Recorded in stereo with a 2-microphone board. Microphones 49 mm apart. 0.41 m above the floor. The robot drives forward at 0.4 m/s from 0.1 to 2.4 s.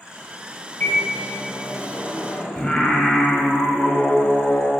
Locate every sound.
0.8 s a microwave: 55° left (ahead or behind), 1.1 m; by 2.5 s 45° left (ahead or behind), 1.3 m
2.5 s singing: 20° left (ahead or behind), 0.8 m